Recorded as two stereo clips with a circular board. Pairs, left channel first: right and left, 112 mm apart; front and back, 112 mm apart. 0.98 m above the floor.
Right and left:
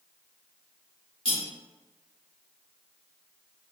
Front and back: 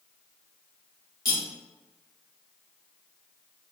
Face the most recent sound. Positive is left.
turn(degrees=-55)